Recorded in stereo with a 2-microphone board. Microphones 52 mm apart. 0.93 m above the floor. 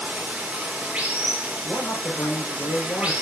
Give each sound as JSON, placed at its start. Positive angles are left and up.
{"t": 0.0, "sound": "running water", "side_deg": -25, "distance_m": 1.6}
{"t": 1.6, "sound": "a man speaking", "side_deg": 50, "distance_m": 3.5}